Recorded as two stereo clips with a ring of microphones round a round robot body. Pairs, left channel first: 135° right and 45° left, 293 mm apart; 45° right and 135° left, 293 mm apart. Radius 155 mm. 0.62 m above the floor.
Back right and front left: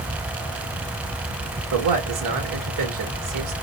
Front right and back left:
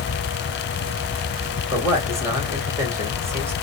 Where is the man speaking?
55° left, 1.6 m.